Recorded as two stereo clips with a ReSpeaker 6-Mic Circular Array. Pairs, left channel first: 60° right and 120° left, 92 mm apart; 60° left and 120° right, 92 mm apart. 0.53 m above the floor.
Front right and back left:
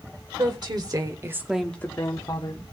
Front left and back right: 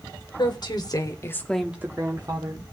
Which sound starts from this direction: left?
A woman speaking, at 0.4 s.